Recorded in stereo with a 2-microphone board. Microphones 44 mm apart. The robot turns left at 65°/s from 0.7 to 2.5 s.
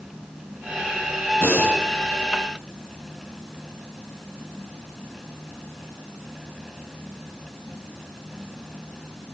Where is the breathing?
80° left, 6 m; by 1.8 s 55° left (ahead or behind), 6 m.